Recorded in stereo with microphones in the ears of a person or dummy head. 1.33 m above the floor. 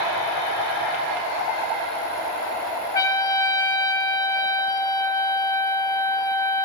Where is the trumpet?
20° left (ahead or behind), 1.5 m.